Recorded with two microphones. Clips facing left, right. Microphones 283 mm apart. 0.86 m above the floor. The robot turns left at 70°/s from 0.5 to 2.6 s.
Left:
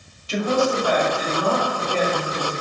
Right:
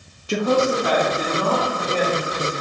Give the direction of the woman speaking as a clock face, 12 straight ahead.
2 o'clock.